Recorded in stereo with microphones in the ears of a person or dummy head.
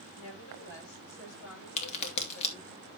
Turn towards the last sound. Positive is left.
turn(degrees=40)  # may be behind; listen again after turning